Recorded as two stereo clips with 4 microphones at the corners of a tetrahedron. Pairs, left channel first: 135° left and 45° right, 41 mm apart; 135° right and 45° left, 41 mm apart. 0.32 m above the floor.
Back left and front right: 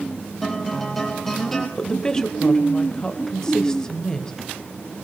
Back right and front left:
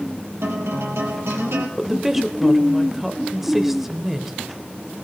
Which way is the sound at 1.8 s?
120° left.